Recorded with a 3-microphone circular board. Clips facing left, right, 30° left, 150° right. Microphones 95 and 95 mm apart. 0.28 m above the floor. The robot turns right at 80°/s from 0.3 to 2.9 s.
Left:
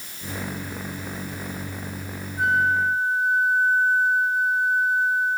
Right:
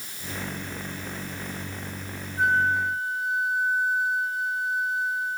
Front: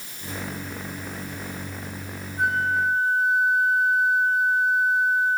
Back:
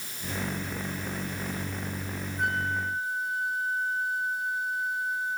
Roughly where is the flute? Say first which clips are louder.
Left 2 dB, front 7 dB; ahead.